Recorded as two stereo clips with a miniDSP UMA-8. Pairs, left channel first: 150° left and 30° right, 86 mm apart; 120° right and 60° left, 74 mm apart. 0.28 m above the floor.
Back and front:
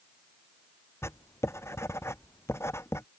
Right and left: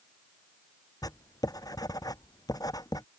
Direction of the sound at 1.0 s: 150° right.